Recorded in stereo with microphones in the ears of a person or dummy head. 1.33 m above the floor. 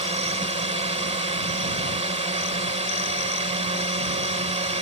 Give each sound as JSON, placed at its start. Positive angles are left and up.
{"t": 0.0, "sound": "a drone", "side_deg": -35}